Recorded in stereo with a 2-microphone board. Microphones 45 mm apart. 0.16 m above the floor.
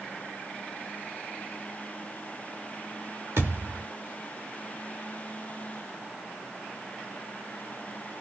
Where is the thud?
75° right (ahead or behind), 2 m.